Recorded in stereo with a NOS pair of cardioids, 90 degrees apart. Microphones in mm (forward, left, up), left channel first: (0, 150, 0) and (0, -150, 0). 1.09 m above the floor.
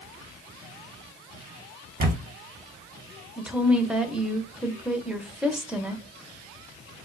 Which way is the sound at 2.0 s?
35° right.